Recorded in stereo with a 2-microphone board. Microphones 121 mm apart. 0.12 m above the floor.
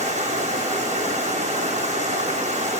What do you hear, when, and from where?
0.0 s running water: 70° right (ahead or behind), 3.5 m